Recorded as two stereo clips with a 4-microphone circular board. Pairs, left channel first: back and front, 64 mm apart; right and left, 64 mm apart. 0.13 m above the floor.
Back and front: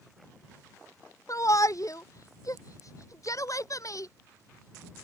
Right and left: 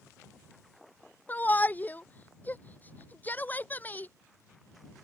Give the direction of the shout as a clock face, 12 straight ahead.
5 o'clock.